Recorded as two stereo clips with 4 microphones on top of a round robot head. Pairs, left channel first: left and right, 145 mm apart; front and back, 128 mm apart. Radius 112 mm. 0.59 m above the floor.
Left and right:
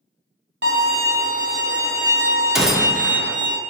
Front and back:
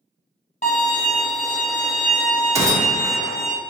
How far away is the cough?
I don't hear a cough.